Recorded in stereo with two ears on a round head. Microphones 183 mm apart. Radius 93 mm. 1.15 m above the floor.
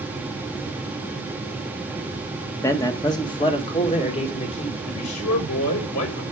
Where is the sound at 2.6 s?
15° left (ahead or behind), 1.4 m; by 4.8 s 30° left (ahead or behind), 3 m.